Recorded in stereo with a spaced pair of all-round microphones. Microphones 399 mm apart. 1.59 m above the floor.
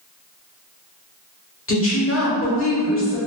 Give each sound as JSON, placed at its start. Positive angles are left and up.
{"t": 1.7, "sound": "a woman speaking", "side_deg": 35, "distance_m": 1.1}